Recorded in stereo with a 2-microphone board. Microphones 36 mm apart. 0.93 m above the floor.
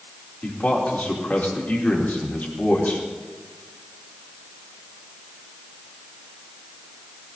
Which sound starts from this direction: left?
A man speaking, at 0.4 s.